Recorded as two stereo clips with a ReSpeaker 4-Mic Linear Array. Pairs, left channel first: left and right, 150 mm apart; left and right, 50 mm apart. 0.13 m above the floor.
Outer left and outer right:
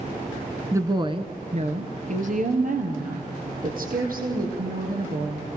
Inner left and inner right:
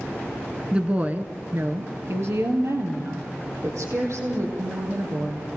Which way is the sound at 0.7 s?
20° right (ahead or behind).